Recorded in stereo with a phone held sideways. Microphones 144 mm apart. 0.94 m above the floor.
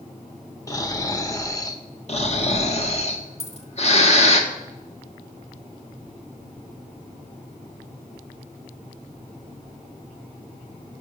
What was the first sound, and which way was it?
Snoring, 20° left (ahead or behind).